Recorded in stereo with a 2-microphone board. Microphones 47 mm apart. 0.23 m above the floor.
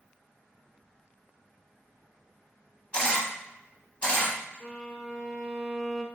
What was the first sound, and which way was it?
A camera shutter, 30° left (ahead or behind).